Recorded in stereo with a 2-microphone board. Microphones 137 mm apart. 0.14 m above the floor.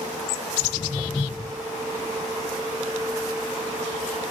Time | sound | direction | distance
0.6 | footsteps | 25° left (ahead or behind) | 3.5 m